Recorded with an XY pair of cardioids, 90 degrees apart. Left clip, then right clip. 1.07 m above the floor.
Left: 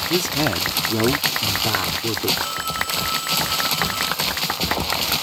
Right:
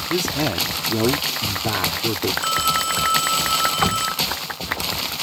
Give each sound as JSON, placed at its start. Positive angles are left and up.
{"t": 0.1, "sound": "a man speaking", "azimuth_deg": 5}
{"t": 2.4, "sound": "a phone ringing", "azimuth_deg": -60}
{"t": 3.8, "sound": "knocking", "azimuth_deg": -65}